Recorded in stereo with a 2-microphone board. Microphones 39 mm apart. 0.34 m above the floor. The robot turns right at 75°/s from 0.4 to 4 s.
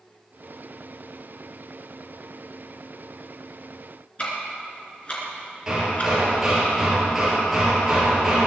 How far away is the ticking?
About 3.5 m.